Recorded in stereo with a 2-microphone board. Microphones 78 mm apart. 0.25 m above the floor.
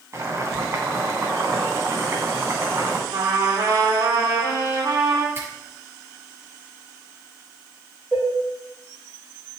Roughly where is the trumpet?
Right.